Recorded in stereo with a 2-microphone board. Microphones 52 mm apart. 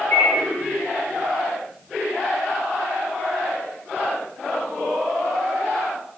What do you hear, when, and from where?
0.1 s a microwave: 35° left (ahead or behind), 1.6 m